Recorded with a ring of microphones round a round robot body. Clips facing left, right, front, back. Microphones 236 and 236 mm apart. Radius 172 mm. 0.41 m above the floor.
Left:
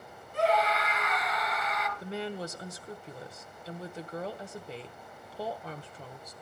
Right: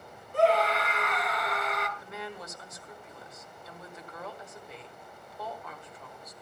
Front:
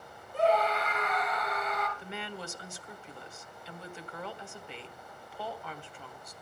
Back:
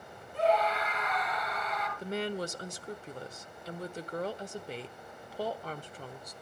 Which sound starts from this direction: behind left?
A woman speaking, at 2.0 s.